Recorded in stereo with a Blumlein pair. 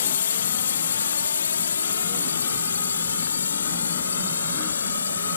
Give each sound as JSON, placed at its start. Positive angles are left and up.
{"t": 0.0, "sound": "a drone", "azimuth_deg": 65}